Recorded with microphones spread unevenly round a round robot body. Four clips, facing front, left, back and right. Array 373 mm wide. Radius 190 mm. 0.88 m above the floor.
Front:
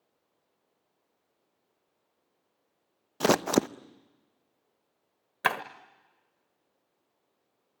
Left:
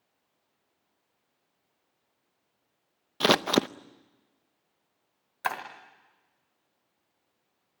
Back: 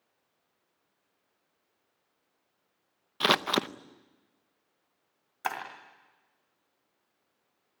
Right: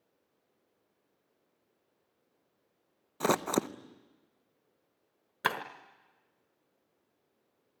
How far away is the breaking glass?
About 1.4 m.